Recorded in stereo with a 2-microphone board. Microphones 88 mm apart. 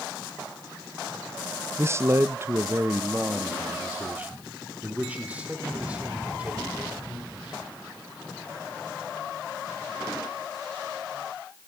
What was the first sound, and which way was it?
A man speaking, 30° right (ahead or behind).